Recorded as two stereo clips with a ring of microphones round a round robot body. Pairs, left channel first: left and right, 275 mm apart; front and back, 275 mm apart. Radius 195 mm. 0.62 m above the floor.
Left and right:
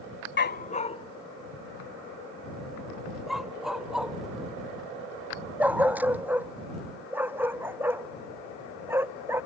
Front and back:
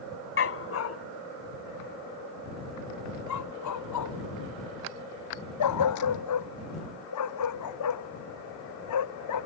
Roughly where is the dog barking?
Ahead left.